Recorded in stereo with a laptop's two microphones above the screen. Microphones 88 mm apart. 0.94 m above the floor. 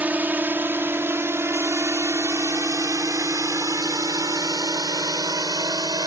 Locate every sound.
0.0 s a drone: 20° right (ahead or behind); by 6.1 s 50° right (ahead or behind)